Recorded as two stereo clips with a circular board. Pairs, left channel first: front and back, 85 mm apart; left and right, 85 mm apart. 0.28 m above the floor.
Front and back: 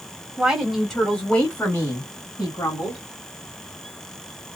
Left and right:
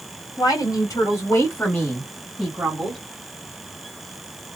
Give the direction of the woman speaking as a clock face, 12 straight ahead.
9 o'clock.